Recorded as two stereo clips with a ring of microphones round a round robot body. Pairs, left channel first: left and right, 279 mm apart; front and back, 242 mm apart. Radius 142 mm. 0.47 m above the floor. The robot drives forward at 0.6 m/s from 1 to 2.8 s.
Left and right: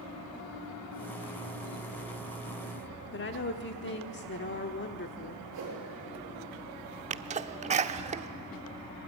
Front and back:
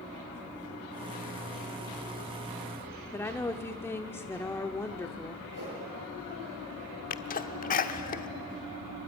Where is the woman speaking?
75° left, 1.0 m.